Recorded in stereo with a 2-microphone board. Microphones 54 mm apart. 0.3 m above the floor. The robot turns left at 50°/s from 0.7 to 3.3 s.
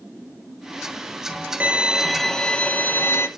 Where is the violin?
155° right, 1.1 m; by 3.3 s 120° left, 1.1 m.